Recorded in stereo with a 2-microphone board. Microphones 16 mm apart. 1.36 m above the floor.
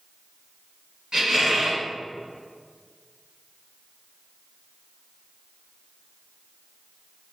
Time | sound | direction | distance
1.1 | a squeak | 45° right (ahead or behind) | 1.9 m